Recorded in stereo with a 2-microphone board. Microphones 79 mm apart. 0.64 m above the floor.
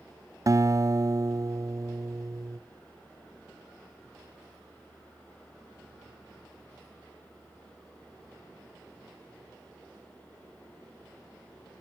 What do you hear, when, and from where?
0.5 s a guitar: 45° right (ahead or behind), 0.7 m